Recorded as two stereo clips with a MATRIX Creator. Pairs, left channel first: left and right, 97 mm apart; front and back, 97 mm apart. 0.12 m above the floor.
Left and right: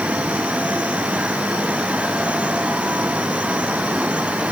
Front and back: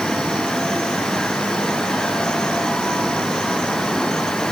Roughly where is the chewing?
No chewing in this recording.